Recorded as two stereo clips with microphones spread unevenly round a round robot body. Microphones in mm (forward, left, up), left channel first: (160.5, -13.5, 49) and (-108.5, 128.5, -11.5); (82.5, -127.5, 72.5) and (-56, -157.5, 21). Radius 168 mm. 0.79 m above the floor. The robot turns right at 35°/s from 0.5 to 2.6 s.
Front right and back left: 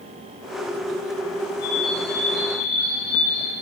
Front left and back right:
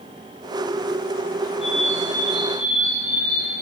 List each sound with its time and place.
1.6 s a bird: 80° right, 5 m; by 3.5 s 45° right, 5 m